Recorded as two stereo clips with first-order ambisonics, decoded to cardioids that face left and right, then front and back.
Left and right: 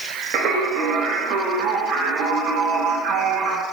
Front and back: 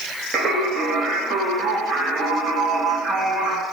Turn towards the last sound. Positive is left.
turn(degrees=-120)